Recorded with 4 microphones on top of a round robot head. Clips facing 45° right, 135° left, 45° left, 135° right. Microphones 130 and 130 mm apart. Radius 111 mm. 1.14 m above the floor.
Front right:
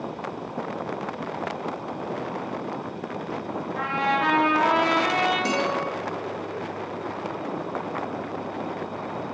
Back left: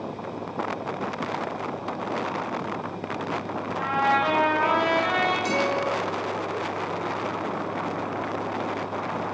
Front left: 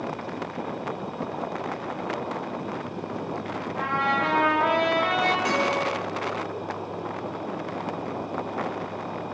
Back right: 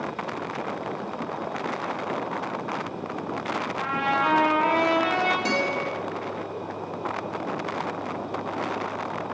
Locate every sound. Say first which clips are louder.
3.8 s a trumpet: back left 2 dB, front left 1 dB; 55° right, 5 m
5.5 s a guitar: back left 1 dB, front left 2 dB; 80° right, 2 m